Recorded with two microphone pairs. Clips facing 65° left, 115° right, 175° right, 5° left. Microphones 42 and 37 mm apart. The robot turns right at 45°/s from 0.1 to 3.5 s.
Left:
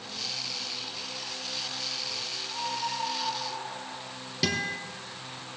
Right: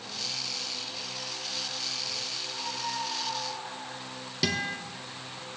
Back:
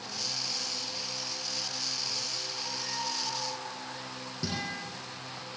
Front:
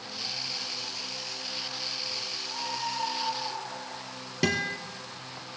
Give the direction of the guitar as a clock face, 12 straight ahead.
1 o'clock.